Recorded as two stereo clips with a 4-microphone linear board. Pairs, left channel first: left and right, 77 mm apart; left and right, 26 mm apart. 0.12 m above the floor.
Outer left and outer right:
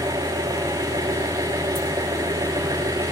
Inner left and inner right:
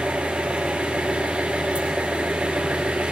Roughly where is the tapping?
I don't hear tapping.